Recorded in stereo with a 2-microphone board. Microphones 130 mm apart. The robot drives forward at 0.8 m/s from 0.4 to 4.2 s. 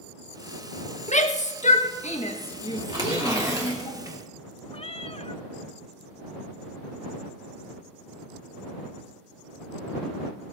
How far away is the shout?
About 1.2 m.